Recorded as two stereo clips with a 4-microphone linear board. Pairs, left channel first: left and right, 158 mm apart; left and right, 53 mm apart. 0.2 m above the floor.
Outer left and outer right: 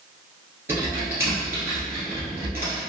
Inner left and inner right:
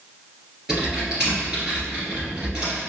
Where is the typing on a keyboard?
15° right (ahead or behind), 1.9 m.